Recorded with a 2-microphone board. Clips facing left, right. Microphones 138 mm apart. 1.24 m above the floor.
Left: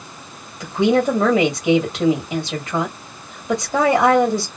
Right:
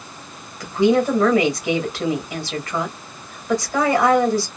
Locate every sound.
0.6 s a woman speaking: 20° left (ahead or behind), 1.8 m